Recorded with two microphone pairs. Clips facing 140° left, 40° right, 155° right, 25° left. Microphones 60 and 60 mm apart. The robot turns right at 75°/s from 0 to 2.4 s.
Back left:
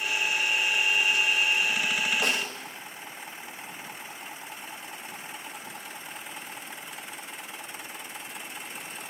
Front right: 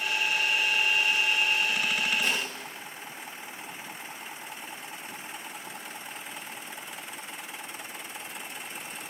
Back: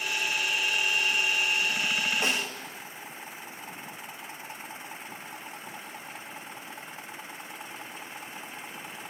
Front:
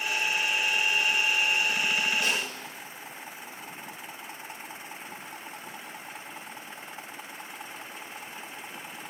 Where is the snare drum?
150° left, 2 m; by 2.5 s 160° left, 2 m.